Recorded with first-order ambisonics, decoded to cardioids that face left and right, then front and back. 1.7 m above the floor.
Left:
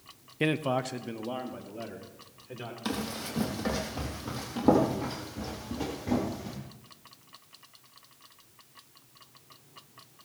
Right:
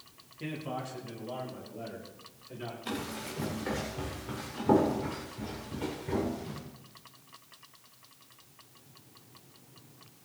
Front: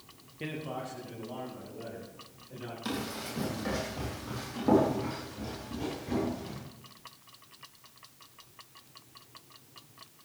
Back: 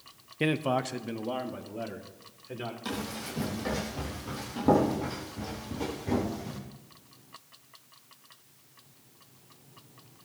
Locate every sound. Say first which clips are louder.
0.4 s a man speaking: left 10 dB, back 10 dB; 125° left, 0.5 m; by 2.8 s 150° left, 3 m
2.9 s running footsteps: left 4 dB, front 3 dB; 85° left, 4 m; by 6.6 s 115° left, 4.5 m